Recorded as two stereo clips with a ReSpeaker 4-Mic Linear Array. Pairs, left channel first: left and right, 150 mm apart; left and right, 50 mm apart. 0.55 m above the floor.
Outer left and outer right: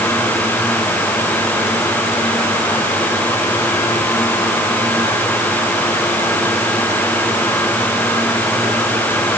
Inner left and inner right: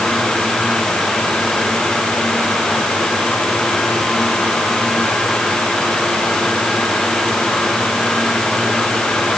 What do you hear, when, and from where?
Only background noise.